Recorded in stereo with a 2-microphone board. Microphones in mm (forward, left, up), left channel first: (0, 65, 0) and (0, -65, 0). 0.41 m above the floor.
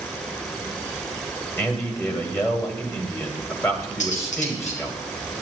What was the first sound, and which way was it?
A man speaking, 20° left (ahead or behind).